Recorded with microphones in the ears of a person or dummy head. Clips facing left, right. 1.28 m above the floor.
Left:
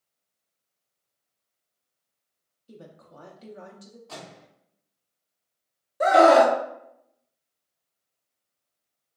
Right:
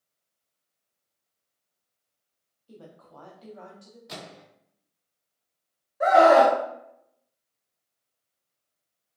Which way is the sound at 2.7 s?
25° left (ahead or behind).